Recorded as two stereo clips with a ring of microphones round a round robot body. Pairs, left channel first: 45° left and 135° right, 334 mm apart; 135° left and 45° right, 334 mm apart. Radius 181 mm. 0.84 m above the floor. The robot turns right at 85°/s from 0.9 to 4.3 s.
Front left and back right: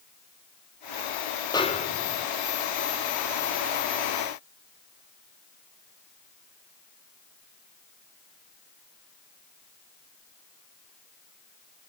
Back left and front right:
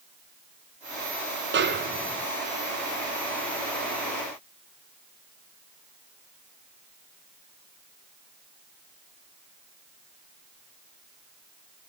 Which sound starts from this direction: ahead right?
A snare drum, at 1.5 s.